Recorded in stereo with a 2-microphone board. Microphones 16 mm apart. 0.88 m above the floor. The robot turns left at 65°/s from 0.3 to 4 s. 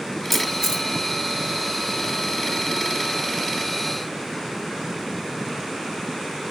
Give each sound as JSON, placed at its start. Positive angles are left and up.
{"t": 0.3, "sound": "a camera shutter", "side_deg": -5, "distance_m": 1.7}